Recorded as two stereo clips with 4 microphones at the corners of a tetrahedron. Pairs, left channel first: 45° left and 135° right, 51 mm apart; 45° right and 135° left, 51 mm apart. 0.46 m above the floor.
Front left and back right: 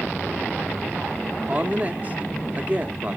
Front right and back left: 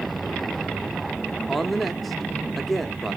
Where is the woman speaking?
130° right, 0.8 m.